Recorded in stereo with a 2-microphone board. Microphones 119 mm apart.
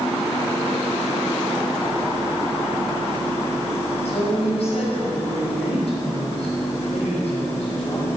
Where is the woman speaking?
60° left (ahead or behind), 5.5 m.